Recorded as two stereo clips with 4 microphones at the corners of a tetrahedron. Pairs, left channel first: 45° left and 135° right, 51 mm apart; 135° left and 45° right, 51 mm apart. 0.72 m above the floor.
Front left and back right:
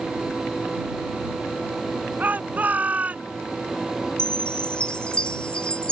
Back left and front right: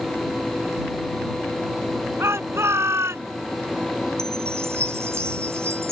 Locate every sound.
2.2 s a shout: 75° right; by 3.3 s 70° right
4.2 s a chime: 25° right